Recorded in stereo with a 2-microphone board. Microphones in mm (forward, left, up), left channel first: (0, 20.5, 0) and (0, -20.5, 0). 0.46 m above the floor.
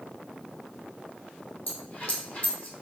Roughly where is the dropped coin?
Left.